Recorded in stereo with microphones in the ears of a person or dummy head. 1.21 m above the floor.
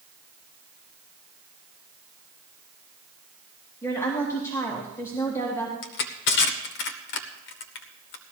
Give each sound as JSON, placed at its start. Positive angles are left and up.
{"t": 3.8, "sound": "a woman speaking", "side_deg": 20, "distance_m": 1.9}
{"t": 5.8, "sound": "crushing", "side_deg": 55, "distance_m": 1.3}